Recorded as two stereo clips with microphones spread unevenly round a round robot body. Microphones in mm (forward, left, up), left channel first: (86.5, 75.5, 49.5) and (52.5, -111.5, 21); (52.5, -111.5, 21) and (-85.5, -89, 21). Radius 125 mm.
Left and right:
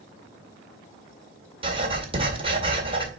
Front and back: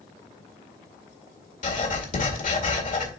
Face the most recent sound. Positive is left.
turn(degrees=-40)